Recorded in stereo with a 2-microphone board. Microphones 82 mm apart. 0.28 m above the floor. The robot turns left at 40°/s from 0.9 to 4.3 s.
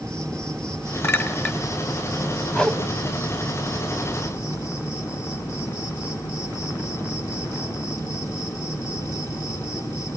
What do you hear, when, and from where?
0.0 s an insect: 170° left, 3.5 m; by 10.2 s 35° left, 3.5 m
1.0 s a clink: 30° left (ahead or behind), 1.5 m; by 1.6 s 10° left (ahead or behind), 1.5 m
2.5 s a whoosh: 10° left (ahead or behind), 1.3 m; by 2.8 s 5° left (ahead or behind), 1.3 m